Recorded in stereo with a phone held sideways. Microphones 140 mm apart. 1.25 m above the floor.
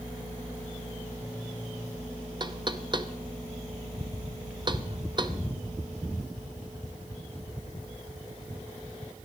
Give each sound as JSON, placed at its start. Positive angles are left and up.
{"t": 2.4, "sound": "knocking", "side_deg": -30, "distance_m": 0.7}